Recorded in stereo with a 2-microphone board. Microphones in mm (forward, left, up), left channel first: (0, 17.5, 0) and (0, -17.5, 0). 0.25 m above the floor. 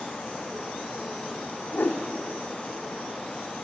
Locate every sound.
1.7 s a whoosh: 60° left (ahead or behind), 3.5 m